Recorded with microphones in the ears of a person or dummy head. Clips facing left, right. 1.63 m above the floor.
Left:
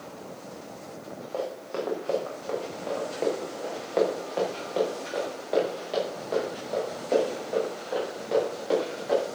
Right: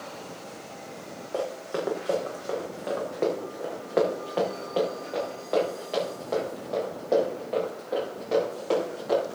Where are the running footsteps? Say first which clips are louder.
Right 2 dB; 20° right (ahead or behind), 4.5 m; by 9.2 s 5° left (ahead or behind), 11 m.